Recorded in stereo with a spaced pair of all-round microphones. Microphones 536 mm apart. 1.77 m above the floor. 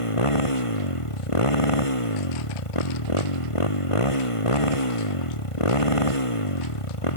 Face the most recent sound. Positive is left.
turn(degrees=70)  # may be behind; listen again after turning